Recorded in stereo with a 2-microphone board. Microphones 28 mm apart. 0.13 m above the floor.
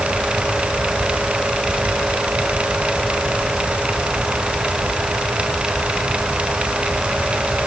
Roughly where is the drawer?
I don't hear a drawer.